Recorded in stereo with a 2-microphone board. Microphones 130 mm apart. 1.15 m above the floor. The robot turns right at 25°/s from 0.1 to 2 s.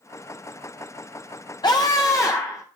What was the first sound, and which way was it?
A scream, 35° left (ahead or behind).